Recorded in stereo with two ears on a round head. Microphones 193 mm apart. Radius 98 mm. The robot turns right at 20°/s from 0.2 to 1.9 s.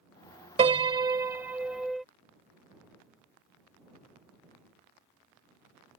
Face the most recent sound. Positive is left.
turn(degrees=0)  # may be behind; listen again after turning